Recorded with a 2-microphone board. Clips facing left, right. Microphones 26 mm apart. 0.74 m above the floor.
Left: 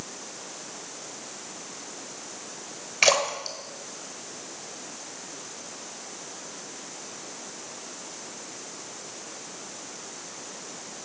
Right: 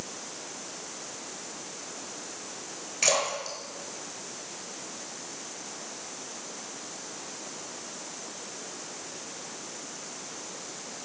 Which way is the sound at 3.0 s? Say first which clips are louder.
Left 5 dB; 40° left (ahead or behind).